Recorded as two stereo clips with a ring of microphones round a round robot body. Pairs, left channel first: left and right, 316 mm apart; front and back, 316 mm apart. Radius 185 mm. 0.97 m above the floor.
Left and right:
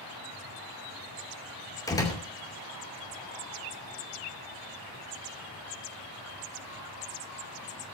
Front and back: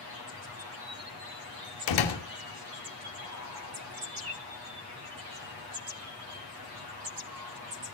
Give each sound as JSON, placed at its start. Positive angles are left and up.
{"t": 1.9, "sound": "a door slam", "azimuth_deg": 10, "distance_m": 2.5}